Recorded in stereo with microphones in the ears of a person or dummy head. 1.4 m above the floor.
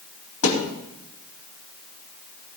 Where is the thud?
75° left (ahead or behind), 3.5 m.